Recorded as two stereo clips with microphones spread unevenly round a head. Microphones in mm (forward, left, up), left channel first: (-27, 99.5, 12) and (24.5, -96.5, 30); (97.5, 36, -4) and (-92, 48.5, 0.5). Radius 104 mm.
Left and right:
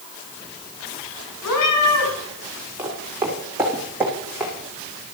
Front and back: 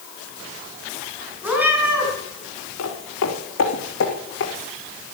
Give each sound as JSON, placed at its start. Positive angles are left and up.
{"t": 1.4, "sound": "a cat meowing", "azimuth_deg": 95, "distance_m": 5.5}
{"t": 2.8, "sound": "footsteps", "azimuth_deg": 0, "distance_m": 4.5}